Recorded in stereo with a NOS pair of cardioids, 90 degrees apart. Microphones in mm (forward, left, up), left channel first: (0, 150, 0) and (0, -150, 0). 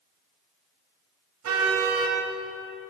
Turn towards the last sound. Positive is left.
turn(degrees=-70)